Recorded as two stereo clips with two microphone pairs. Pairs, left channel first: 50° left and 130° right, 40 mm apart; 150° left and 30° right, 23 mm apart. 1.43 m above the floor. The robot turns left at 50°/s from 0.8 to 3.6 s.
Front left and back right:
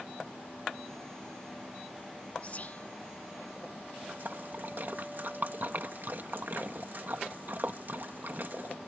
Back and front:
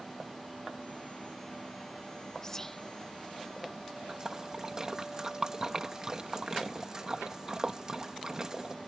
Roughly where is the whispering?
Left.